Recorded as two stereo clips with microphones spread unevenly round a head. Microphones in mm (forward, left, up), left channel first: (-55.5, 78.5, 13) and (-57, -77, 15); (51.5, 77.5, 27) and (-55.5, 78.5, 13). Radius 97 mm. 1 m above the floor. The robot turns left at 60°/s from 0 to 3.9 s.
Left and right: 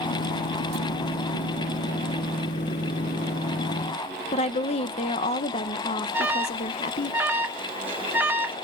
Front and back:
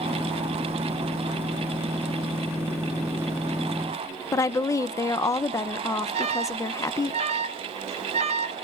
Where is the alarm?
170° right, 1.3 m.